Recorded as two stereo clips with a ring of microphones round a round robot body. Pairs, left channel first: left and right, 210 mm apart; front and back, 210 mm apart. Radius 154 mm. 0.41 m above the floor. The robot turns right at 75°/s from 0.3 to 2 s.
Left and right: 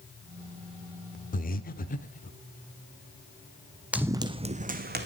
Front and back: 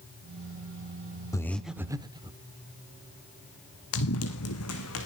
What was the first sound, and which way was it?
Breathing, 65° left.